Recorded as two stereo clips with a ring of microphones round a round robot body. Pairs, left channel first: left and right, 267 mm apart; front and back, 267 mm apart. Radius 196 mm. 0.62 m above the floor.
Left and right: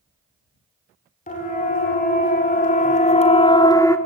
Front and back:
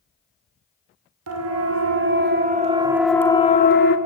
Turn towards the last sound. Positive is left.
turn(degrees=15)